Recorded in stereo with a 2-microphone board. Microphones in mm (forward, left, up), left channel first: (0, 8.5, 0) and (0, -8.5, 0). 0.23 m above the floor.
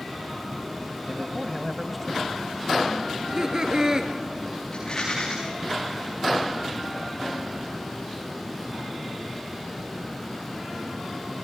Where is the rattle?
30° left (ahead or behind), 10 m.